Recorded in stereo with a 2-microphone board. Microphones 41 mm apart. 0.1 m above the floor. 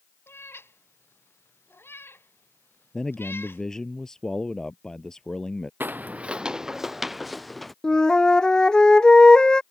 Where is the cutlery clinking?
I don't hear cutlery clinking.